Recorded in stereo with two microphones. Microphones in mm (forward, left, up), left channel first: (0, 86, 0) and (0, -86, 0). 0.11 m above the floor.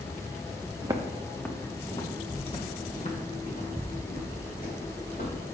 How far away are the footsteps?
About 0.9 m.